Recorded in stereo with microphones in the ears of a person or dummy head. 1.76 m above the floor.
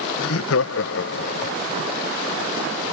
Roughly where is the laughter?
Left.